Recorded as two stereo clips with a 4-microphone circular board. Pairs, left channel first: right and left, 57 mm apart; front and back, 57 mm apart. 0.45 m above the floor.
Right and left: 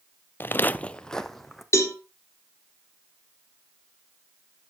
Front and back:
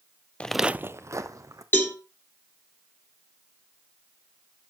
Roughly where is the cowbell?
Ahead right.